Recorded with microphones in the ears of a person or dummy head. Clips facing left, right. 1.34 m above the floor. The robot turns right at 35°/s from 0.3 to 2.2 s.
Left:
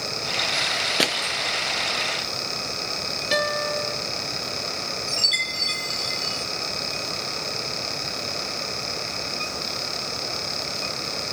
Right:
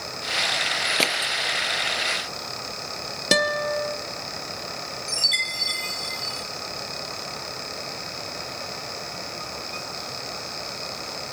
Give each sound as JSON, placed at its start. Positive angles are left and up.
{"t": 1.0, "sound": "crushing", "side_deg": 15, "distance_m": 0.7}
{"t": 3.3, "sound": "a guitar", "side_deg": -65, "distance_m": 1.1}
{"t": 5.1, "sound": "a chime", "side_deg": 10, "distance_m": 1.1}